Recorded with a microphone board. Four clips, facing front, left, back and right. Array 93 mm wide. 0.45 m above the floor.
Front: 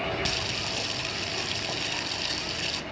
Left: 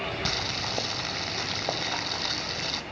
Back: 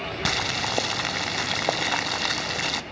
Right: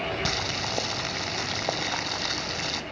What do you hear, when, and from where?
0.2 s boiling: 175° right, 0.5 m